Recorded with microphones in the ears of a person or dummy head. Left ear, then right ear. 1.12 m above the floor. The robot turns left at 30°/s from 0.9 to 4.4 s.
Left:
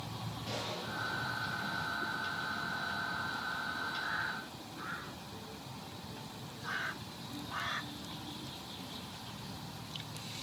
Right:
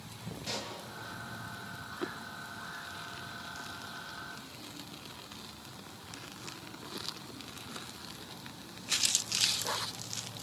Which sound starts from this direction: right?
A pop, at 0.4 s.